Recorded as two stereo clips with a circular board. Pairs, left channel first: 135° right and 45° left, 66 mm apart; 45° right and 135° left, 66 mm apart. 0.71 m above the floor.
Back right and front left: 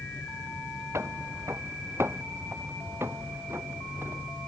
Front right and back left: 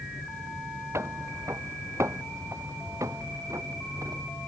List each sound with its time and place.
0.9 s footsteps: 90° left; by 4.3 s 100° left